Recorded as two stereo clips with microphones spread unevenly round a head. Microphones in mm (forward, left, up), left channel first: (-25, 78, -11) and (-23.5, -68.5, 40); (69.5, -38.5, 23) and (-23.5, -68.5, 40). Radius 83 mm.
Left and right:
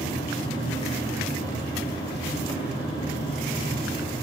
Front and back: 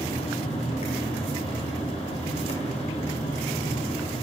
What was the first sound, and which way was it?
A fan, 25° left.